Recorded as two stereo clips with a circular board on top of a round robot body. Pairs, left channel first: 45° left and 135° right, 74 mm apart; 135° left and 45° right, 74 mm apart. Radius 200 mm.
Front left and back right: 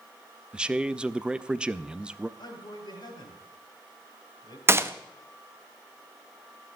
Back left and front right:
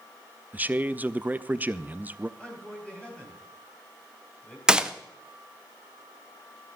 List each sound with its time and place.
0.5 s a man speaking: 75° right, 0.8 m
2.4 s a man speaking: 60° left, 3.5 m
4.7 s a gunshot: 115° right, 1.2 m